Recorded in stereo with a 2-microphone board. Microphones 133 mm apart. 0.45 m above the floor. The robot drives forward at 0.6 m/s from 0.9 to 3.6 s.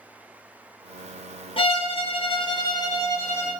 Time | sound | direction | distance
1.6 | a violin | 40° left (ahead or behind) | 0.6 m